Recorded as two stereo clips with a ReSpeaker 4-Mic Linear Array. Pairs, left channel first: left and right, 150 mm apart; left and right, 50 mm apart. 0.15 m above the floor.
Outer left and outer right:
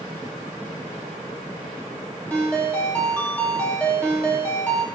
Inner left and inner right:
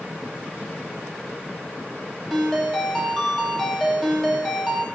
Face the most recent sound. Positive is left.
turn(degrees=10)  # may be behind; listen again after turning